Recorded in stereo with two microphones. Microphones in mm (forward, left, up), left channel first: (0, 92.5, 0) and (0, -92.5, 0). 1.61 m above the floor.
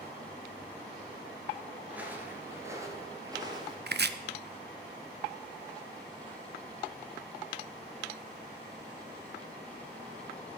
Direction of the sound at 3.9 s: 65° right (ahead or behind).